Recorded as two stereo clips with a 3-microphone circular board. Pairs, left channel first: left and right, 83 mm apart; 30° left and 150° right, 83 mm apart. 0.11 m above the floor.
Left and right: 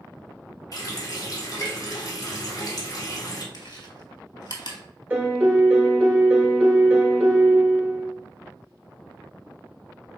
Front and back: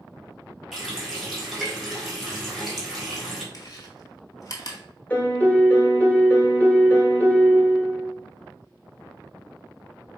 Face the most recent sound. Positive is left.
turn(degrees=-35)